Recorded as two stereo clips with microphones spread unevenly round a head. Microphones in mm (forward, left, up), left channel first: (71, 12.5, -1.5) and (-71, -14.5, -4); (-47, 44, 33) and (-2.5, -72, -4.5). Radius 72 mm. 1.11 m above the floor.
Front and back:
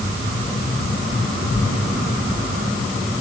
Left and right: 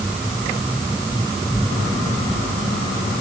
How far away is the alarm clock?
No alarm clock in this recording.